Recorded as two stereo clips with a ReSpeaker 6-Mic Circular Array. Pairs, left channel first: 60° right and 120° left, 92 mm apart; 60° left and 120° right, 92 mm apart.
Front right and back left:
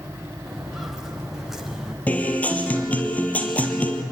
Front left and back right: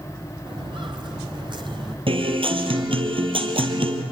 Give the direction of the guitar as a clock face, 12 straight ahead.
4 o'clock.